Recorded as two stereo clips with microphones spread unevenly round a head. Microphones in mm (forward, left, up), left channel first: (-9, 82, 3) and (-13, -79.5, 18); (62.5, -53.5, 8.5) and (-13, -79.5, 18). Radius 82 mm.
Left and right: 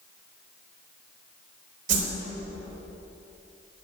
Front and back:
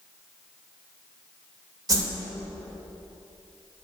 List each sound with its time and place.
1.9 s a whoosh: 130° right, 3 m